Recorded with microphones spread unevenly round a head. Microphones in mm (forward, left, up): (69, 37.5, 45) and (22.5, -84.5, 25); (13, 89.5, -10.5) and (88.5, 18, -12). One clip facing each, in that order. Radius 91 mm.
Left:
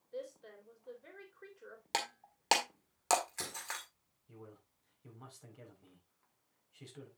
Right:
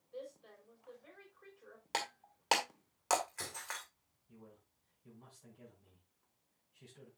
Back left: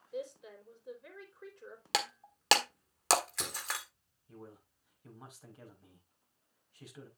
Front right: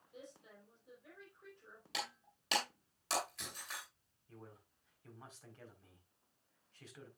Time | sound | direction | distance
0.1 | a woman speaking | 125° left | 3.5 m
1.9 | breaking glass | 140° left | 1.6 m
4.3 | a man speaking | 60° left | 4.5 m